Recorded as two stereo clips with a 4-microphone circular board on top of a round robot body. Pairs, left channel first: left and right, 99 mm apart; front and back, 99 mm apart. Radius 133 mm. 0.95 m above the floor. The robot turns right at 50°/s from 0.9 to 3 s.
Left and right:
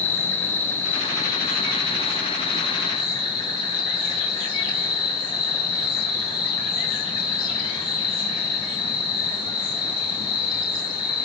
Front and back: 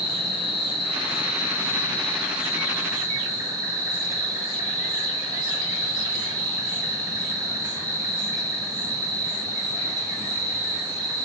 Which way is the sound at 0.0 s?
25° left.